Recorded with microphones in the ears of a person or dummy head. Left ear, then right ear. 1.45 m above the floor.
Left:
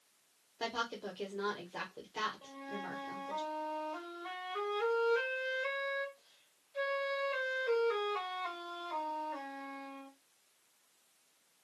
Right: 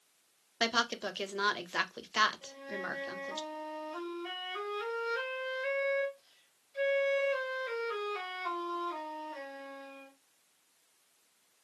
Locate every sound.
0.6 s a woman speaking: 60° right (ahead or behind), 0.6 m
2.4 s a flute: 15° left (ahead or behind), 1.5 m